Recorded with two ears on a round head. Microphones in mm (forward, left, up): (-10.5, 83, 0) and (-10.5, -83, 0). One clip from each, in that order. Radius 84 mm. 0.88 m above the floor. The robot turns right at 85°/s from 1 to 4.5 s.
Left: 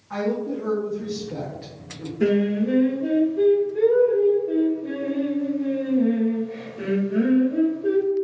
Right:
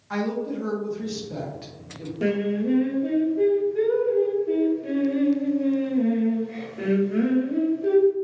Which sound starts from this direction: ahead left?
Singing, at 2.2 s.